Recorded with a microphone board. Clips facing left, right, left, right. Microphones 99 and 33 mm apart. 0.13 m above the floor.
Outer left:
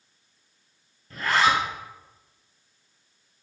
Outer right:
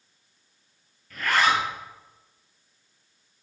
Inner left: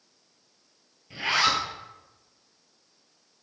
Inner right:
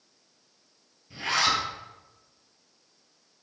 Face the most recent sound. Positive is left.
turn(degrees=30)  # may be behind; listen again after turning